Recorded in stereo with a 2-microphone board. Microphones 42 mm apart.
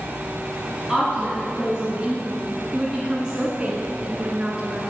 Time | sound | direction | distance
0.9 | a woman speaking | centre (ahead or behind) | 1.8 m